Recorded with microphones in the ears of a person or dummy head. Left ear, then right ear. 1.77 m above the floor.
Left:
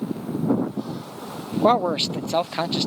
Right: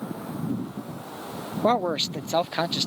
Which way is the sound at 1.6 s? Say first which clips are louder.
Left 4 dB; 20° left (ahead or behind).